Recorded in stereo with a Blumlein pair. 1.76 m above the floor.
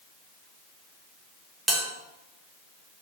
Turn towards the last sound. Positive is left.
turn(degrees=-5)